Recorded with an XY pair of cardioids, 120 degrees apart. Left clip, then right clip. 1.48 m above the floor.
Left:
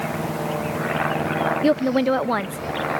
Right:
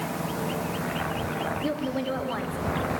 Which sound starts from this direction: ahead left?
A woman speaking, at 1.6 s.